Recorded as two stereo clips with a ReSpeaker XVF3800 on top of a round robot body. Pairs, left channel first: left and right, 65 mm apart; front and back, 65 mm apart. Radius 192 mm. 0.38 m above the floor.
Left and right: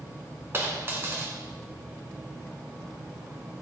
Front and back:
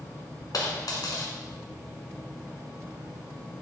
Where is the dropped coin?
30° right, 1.5 m.